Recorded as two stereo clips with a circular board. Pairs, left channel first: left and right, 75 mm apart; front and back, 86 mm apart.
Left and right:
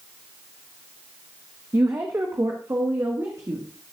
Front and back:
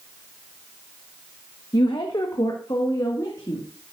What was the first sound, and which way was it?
A woman speaking, 35° right.